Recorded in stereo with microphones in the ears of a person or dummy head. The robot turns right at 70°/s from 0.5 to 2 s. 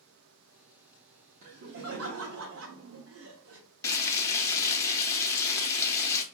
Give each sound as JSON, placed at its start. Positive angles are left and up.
{"t": 1.4, "sound": "laughter", "azimuth_deg": -135, "distance_m": 0.7}
{"t": 3.8, "sound": "frying", "side_deg": 20, "distance_m": 0.7}